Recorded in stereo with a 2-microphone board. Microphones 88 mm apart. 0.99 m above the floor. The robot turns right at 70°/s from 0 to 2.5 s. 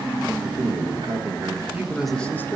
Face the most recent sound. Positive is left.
turn(degrees=30)